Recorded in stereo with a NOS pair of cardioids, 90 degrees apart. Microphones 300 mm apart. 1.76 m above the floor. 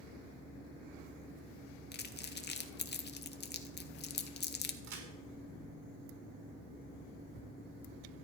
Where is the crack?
65° right, 5 m.